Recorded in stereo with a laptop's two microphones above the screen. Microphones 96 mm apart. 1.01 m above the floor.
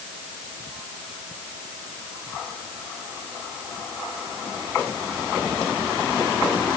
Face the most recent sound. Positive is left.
No sound to turn to.